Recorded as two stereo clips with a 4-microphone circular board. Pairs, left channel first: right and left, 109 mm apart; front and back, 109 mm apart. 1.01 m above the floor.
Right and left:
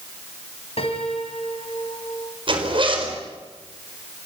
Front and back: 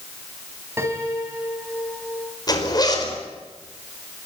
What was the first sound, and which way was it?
A piano, 115° right.